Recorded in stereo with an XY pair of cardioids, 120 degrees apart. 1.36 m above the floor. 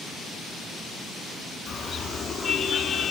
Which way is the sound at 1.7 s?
30° left.